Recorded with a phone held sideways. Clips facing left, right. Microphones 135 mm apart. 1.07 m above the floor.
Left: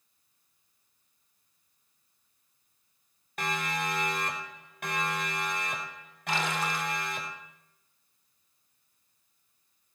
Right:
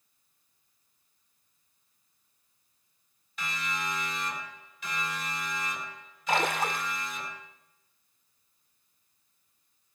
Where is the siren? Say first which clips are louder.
Left 4 dB; 60° left (ahead or behind), 4 m; by 7.3 s 65° left (ahead or behind), 7 m.